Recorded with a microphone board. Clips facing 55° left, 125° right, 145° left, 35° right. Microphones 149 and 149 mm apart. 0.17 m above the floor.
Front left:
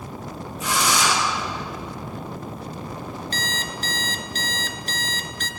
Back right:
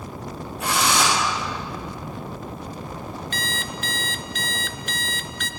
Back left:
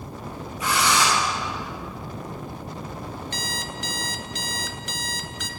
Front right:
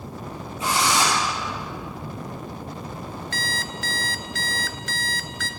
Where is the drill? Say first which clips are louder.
Back right 1 dB, even; 95° right, 7.5 m.